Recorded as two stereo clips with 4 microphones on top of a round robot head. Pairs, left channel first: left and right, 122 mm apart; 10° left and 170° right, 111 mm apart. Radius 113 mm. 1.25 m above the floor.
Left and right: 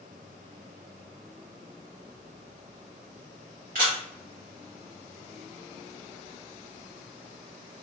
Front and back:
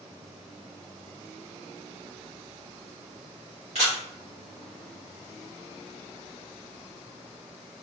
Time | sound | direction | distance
3.8 | a camera shutter | 120° right | 0.7 m